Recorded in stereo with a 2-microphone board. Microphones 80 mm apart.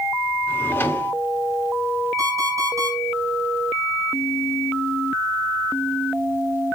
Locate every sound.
0.5 s a drawer: 25° left (ahead or behind), 1.6 m
2.2 s an alarm clock: 45° right (ahead or behind), 5.5 m